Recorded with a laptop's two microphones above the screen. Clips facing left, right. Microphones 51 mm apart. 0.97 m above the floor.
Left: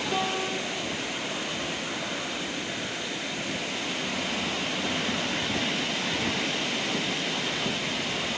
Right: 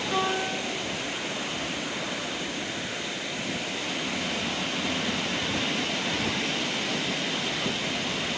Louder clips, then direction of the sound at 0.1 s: Right 3 dB; 5° right (ahead or behind).